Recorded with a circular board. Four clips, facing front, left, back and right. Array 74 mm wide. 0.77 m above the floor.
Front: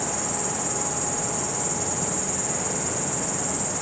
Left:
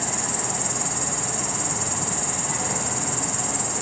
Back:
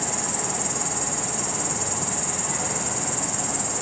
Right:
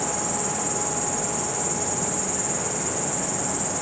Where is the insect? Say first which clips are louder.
Right 2 dB, even; 120° left, 2 m.